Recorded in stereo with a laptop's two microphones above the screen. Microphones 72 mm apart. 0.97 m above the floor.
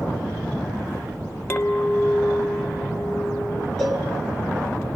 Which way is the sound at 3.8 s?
5° left (ahead or behind).